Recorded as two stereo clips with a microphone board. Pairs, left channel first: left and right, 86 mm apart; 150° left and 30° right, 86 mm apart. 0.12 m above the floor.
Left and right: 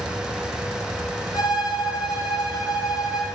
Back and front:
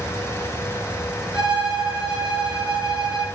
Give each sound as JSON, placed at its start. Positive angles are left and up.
{"t": 1.3, "sound": "a violin", "azimuth_deg": 50, "distance_m": 2.5}